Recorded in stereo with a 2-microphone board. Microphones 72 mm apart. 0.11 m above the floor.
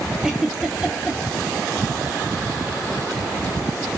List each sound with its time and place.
0.2 s a giggle: 10° right (ahead or behind), 0.7 m